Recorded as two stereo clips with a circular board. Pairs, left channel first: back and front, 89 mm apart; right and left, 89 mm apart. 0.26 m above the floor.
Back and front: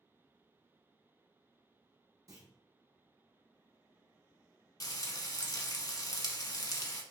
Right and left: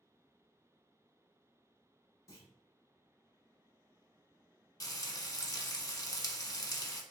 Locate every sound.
2.3 s a clunk: 45° right, 1.0 m
4.8 s frying: 135° right, 0.5 m